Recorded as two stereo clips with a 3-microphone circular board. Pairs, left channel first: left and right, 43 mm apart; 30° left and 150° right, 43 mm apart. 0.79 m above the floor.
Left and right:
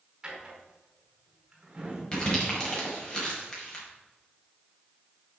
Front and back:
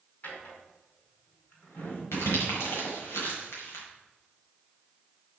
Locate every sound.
0.2 s a drawer: 15° right, 5 m
2.1 s crumpling: 25° left, 5.5 m